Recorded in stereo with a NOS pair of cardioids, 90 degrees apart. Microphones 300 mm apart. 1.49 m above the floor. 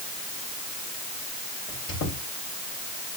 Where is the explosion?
I don't hear an explosion.